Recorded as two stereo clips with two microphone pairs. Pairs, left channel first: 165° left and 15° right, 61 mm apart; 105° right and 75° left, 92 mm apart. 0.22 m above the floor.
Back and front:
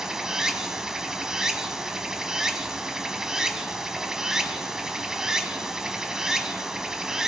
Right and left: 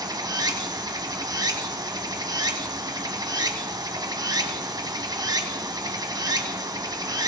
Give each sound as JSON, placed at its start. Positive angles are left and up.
{"t": 0.0, "sound": "running water", "azimuth_deg": 55, "distance_m": 0.7}